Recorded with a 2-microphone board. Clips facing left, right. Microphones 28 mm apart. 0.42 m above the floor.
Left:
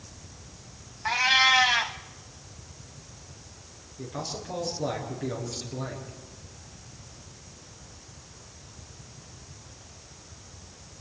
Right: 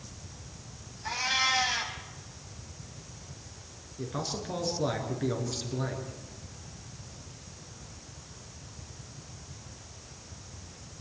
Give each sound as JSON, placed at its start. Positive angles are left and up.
{"t": 1.1, "sound": "a cat meowing", "side_deg": 40, "distance_m": 1.2}
{"t": 4.0, "sound": "a man speaking", "side_deg": -20, "distance_m": 5.5}